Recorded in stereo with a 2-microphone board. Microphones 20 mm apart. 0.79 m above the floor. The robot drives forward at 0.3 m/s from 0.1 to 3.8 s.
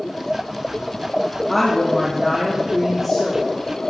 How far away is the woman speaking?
About 1.3 m.